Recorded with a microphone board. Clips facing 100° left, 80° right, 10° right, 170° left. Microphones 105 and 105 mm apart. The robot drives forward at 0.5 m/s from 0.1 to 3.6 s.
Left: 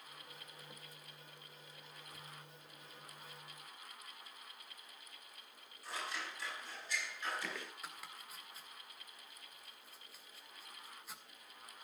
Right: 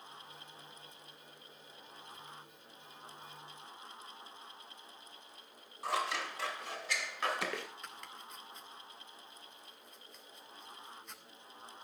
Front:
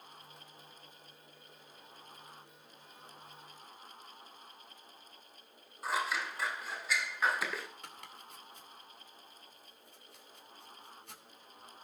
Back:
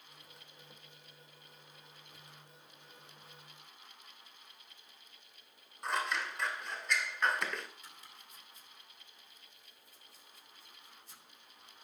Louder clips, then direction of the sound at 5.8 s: Right 9 dB, front 1 dB; 95° right.